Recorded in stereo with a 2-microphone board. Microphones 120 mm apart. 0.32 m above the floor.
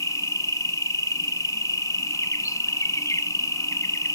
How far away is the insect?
About 0.8 m.